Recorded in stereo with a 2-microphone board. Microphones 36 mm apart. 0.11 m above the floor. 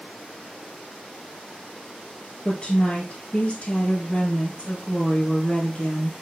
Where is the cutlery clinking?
No cutlery clinking in this recording.